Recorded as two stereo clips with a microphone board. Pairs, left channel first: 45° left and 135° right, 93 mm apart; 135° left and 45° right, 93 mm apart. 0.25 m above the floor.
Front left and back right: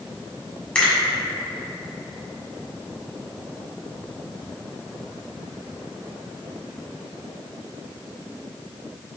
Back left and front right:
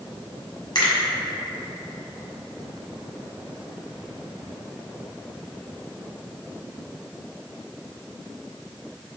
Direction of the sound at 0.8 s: 120° left.